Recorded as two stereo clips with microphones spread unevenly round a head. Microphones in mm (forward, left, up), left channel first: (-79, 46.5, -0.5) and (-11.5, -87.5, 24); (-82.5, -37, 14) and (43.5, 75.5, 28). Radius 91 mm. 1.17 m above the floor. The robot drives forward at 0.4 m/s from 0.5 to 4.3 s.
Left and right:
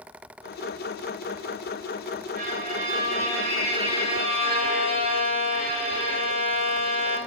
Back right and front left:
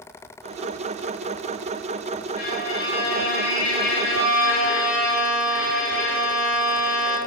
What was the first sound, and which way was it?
A violin, 95° right.